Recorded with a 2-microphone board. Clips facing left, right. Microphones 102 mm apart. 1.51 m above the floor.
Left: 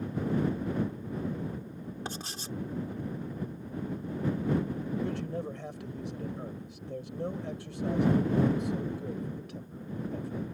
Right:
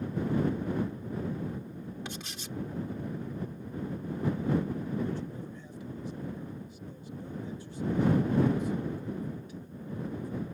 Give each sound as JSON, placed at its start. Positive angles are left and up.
{"t": 2.0, "sound": "writing", "side_deg": 35}
{"t": 5.0, "sound": "a man speaking", "side_deg": 80}